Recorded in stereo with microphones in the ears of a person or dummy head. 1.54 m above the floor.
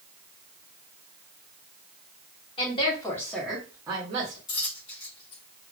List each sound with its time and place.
2.6 s a woman speaking: 35° left (ahead or behind), 1.2 m; by 4.4 s 45° right (ahead or behind), 1.0 m
4.5 s a dropped coin: 25° left (ahead or behind), 1.0 m